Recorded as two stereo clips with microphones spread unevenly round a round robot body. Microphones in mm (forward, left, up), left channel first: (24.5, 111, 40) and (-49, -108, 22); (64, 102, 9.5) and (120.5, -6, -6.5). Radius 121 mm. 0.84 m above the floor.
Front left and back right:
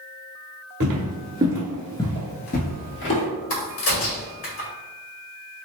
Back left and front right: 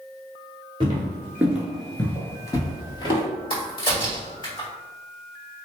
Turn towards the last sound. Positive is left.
turn(degrees=65)